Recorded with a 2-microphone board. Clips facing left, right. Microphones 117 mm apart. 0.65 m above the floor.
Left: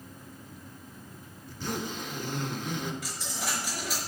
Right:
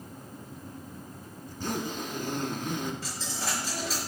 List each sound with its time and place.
1.5 s a zipper: 45° right (ahead or behind), 1.4 m
3.0 s a dropped coin: 35° right (ahead or behind), 4.5 m